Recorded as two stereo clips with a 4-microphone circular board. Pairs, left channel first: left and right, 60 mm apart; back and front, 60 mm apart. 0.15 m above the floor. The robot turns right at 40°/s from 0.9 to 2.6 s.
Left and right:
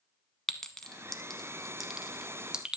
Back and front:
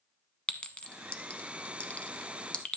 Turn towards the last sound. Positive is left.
turn(degrees=-140)